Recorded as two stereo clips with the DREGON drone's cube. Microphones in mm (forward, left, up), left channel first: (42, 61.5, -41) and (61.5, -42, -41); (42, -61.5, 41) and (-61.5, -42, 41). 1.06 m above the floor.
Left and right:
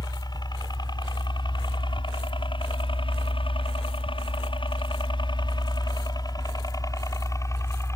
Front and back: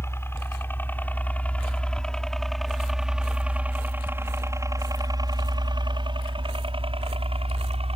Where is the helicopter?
55° left; by 8.0 s 160° left.